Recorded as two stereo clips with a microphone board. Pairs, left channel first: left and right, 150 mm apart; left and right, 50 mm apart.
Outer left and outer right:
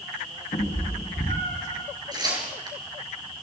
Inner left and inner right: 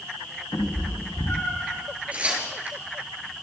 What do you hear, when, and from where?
0.5 s a cat meowing: 45° left (ahead or behind), 7 m
2.1 s tearing paper: 25° right (ahead or behind), 6 m